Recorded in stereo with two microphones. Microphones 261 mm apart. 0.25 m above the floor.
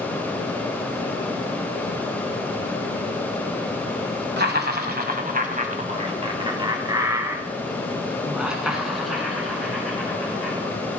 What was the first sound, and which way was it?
Laughter, 45° right (ahead or behind).